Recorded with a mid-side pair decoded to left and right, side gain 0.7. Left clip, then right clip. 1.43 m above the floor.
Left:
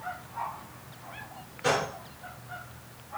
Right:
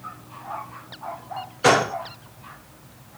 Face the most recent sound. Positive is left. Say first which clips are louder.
# right 9 dB
turn(degrees=-50)